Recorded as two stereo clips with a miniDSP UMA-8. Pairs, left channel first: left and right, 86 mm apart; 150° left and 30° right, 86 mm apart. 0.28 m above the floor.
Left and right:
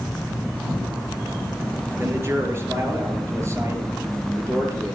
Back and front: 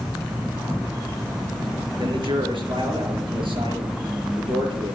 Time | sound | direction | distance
2.0 | a man speaking | 30° right | 5 m